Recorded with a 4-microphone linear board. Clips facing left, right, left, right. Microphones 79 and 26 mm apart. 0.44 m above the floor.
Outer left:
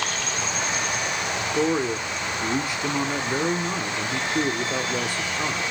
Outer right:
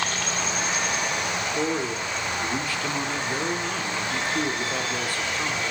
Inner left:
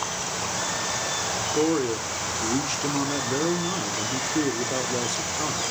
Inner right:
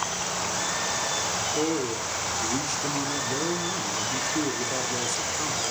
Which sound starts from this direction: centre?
A man speaking, at 1.5 s.